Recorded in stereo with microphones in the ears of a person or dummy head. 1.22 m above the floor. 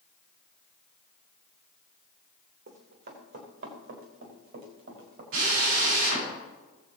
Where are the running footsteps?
70° right (ahead or behind), 3.5 m.